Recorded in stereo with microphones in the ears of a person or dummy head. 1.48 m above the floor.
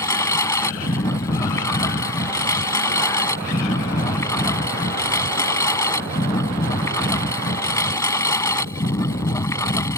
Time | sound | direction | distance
0.0 | a lawn mower | 15° left (ahead or behind) | ?